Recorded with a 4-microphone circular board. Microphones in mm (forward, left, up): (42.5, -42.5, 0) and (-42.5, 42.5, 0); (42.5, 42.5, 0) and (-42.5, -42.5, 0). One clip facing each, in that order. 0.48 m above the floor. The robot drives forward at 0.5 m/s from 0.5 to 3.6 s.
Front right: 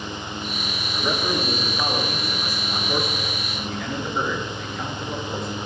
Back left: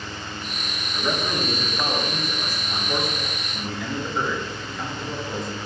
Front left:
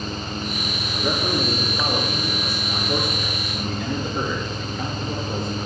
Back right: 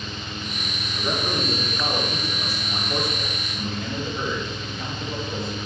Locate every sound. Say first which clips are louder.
0.9 s a man speaking: front right 1 dB, front left 3 dB; 35° left, 9 m; by 5.5 s 45° left, 8 m